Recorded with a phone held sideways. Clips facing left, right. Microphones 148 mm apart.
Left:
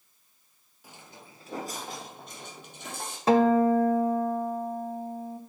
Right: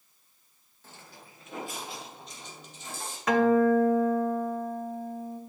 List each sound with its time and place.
0.8 s footsteps: 10° left (ahead or behind), 1.5 m; by 3.2 s 65° left (ahead or behind), 2.5 m
3.3 s a guitar: 30° left (ahead or behind), 0.8 m